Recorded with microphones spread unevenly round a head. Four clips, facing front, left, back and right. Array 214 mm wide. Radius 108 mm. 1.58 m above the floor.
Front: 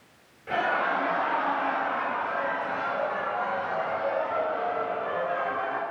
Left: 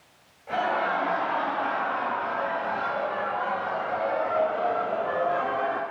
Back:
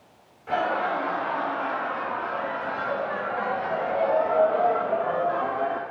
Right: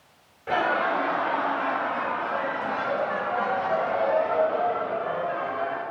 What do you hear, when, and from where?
0.5 s laughter: 90° right, 6 m; by 5.8 s 160° left, 3 m